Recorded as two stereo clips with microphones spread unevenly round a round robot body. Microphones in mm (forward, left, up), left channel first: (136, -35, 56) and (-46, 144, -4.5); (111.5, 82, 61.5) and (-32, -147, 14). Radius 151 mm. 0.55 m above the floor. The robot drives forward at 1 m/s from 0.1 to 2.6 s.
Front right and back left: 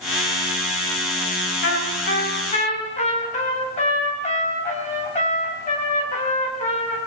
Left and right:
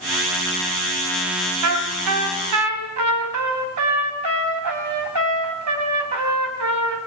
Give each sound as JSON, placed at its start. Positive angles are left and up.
{"t": 1.6, "sound": "a trumpet", "azimuth_deg": -100, "distance_m": 3.0}